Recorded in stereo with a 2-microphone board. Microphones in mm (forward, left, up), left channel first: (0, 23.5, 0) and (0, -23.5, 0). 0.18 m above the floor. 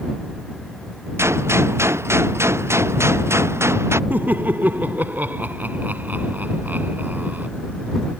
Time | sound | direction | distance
1.2 | a gunshot | 65° right (ahead or behind) | ?
4.1 | laughter | 40° right (ahead or behind) | ?